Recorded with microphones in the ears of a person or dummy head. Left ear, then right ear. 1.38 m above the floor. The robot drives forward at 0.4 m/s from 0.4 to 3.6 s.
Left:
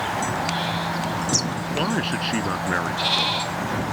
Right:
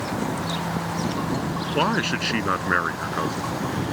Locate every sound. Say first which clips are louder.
1.7 s a man speaking: right 3 dB; 30° right (ahead or behind)